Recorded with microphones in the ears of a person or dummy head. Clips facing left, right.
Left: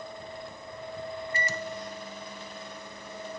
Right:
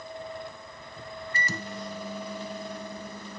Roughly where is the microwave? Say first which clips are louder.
Right 1 dB; right.